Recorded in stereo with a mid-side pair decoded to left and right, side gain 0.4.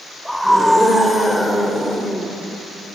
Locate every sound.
0.2 s a scream: 5° left, 7 m; by 2.3 s straight ahead, 5.5 m